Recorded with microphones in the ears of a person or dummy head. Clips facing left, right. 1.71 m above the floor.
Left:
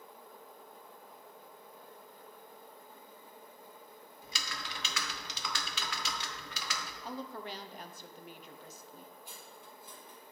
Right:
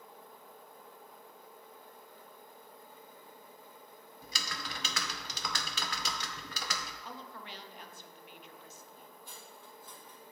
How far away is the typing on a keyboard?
About 0.6 m.